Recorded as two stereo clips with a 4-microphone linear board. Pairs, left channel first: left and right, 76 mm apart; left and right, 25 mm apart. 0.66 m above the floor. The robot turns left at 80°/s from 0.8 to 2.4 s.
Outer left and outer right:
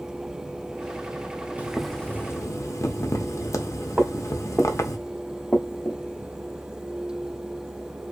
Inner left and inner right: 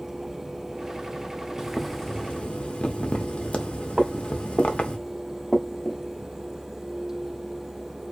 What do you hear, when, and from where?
1.6 s boiling: 160° right, 0.5 m; by 5.0 s 135° left, 0.5 m
4.0 s footsteps: 25° right (ahead or behind), 0.8 m; by 6.0 s 25° left (ahead or behind), 0.8 m